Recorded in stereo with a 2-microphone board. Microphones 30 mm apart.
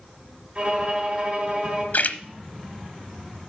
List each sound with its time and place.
0.6 s a violin: 30° right (ahead or behind), 2.5 m
1.9 s a splash: 70° left (ahead or behind), 0.9 m